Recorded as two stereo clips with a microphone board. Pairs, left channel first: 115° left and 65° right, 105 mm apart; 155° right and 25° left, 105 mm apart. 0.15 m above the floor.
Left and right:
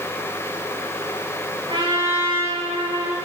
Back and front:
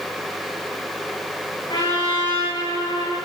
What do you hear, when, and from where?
1.7 s a trumpet: 110° right, 9.5 m